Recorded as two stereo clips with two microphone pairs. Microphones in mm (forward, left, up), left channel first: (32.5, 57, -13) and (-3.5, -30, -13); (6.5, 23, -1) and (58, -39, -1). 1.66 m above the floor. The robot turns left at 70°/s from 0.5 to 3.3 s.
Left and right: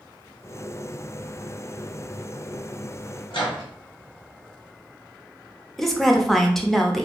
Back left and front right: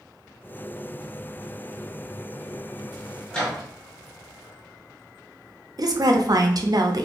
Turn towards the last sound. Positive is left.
turn(degrees=-15)